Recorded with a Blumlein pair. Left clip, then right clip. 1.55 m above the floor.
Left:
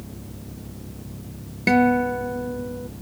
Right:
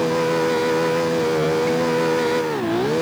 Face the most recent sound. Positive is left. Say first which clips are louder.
# even
turn(degrees=60)